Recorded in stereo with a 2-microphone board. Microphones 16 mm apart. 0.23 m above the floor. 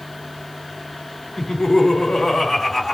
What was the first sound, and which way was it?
Laughter, 50° left (ahead or behind).